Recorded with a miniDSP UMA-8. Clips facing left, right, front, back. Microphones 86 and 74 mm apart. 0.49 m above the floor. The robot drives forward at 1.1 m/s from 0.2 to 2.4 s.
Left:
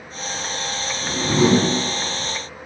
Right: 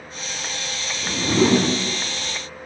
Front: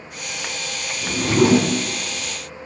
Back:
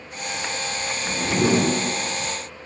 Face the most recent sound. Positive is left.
turn(degrees=90)